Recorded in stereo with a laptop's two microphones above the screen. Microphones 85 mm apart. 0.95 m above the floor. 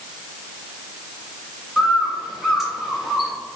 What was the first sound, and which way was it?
A bird, 5° right (ahead or behind).